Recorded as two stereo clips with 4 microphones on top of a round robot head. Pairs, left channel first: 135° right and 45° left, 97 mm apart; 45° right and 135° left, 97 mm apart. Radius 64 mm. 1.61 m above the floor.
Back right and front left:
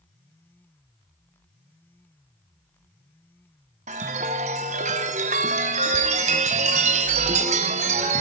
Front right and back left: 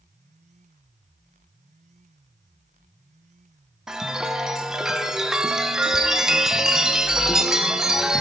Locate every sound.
3.9 s a chime: 50° left, 0.8 m